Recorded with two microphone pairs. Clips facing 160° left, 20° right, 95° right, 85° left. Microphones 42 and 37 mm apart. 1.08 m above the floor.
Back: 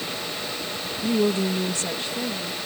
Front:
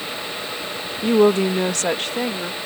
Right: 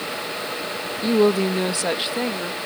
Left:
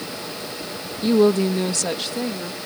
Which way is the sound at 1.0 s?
Straight ahead.